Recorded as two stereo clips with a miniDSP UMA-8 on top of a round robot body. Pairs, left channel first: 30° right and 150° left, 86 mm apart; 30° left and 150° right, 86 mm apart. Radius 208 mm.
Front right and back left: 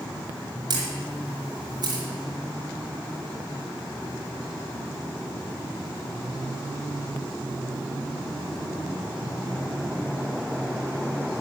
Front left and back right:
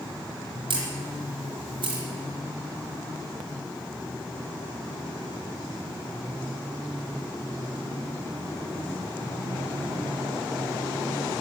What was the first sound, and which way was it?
A camera shutter, 170° right.